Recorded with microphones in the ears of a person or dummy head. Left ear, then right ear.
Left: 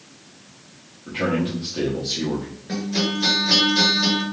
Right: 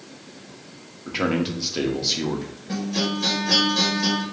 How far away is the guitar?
About 1.9 m.